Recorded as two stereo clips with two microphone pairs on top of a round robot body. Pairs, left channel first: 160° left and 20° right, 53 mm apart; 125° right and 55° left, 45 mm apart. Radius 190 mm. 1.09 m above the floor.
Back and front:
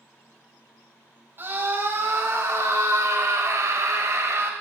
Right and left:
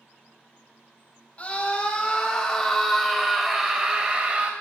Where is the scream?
65° right, 3.5 m; by 4.5 s 5° left, 3 m.